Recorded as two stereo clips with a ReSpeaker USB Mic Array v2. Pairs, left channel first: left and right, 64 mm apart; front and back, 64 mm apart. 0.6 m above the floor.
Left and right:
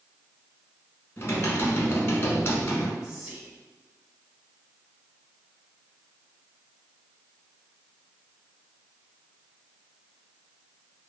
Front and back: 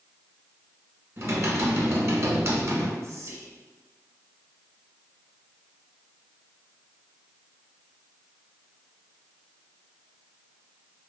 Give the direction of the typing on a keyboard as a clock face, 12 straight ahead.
7 o'clock.